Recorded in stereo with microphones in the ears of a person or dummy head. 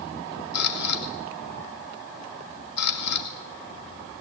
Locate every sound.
0.5 s a camera shutter: 65° left (ahead or behind), 3 m